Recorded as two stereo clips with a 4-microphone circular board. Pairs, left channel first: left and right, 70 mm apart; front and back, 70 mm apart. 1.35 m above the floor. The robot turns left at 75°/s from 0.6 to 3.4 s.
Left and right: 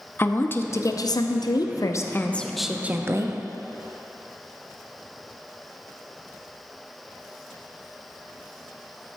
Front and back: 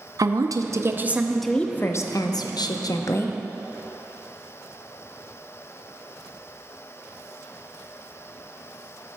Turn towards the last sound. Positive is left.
turn(degrees=-60)